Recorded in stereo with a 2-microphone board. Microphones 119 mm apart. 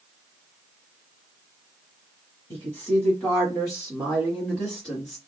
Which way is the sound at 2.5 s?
20° left (ahead or behind).